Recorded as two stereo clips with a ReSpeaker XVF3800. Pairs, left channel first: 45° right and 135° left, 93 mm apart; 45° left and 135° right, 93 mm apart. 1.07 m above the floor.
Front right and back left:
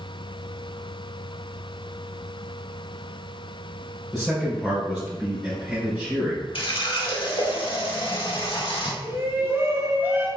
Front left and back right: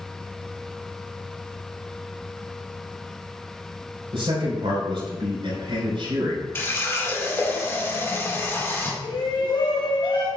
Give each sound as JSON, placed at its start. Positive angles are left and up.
{"t": 4.1, "sound": "a man speaking", "azimuth_deg": -135, "distance_m": 3.5}
{"t": 6.5, "sound": "a running tap", "azimuth_deg": -20, "distance_m": 1.7}
{"t": 9.0, "sound": "a shout", "azimuth_deg": 70, "distance_m": 2.5}